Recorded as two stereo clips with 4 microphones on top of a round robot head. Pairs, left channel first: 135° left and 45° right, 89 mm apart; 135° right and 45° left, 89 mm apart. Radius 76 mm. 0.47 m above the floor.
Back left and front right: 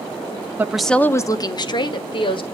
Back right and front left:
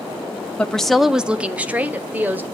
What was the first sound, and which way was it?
A woman speaking, 75° right.